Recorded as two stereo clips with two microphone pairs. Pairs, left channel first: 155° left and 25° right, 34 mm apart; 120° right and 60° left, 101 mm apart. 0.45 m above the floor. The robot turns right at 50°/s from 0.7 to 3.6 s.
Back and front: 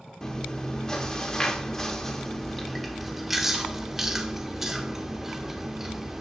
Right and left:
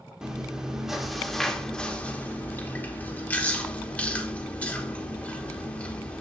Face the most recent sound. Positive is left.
turn(degrees=-85)